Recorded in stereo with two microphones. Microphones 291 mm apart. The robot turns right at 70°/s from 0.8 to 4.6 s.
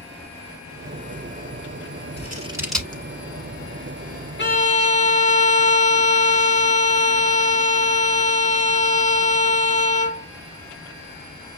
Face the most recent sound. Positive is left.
turn(degrees=25)  # may be behind; listen again after turning